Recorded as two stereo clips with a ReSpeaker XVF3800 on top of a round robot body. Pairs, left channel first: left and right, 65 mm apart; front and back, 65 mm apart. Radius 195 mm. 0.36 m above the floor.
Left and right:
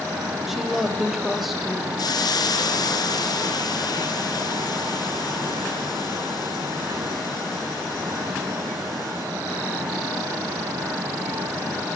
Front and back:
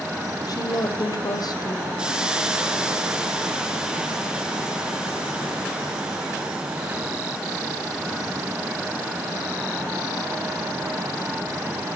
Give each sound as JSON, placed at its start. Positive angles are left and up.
{"t": 0.5, "sound": "a woman speaking", "azimuth_deg": 0, "distance_m": 3.5}
{"t": 2.0, "sound": "a hiss", "azimuth_deg": 105, "distance_m": 2.5}